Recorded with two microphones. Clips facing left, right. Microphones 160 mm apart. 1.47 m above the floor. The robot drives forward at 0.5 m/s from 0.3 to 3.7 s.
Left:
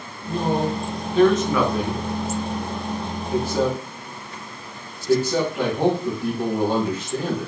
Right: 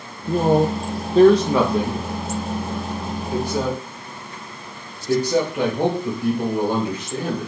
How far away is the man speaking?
About 0.6 m.